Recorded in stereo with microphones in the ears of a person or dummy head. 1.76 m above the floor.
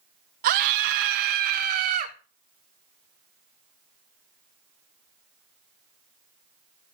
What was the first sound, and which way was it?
A scream, 50° right (ahead or behind).